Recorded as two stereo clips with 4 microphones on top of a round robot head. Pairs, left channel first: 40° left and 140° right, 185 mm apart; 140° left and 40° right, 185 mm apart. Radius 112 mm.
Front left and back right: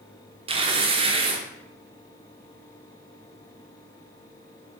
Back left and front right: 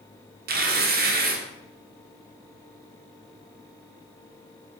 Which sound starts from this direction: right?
Tearing paper, at 0.5 s.